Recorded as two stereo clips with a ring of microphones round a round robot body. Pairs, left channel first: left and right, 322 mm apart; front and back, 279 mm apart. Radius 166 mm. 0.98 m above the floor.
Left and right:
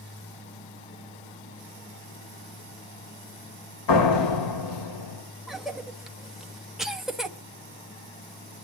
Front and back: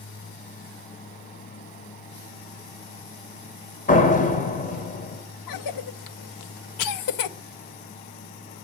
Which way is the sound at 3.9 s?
60° left.